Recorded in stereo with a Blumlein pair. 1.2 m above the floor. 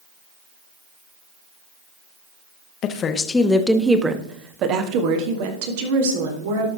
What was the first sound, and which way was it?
A woman speaking, 35° left.